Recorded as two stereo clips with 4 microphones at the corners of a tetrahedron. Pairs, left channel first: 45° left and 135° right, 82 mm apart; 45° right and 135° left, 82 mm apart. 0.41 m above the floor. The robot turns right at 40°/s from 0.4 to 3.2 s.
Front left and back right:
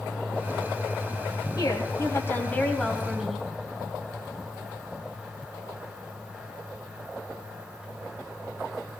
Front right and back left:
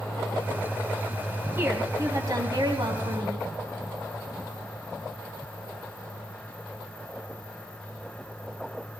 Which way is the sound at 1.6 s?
75° left.